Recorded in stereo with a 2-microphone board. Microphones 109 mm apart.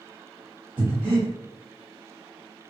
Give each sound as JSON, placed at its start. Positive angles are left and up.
{"t": 0.8, "sound": "breathing", "side_deg": -45, "distance_m": 1.5}